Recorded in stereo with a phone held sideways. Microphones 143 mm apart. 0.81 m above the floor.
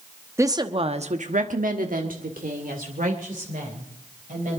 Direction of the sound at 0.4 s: 20° right (ahead or behind).